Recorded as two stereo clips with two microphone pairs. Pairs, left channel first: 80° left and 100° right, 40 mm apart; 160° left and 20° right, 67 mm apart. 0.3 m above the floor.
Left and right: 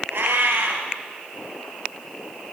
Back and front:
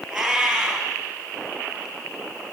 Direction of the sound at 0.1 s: 100° right.